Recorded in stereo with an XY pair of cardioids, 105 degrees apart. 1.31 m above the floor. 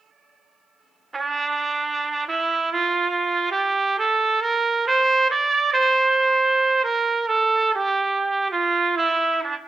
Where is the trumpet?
30° right, 2 m.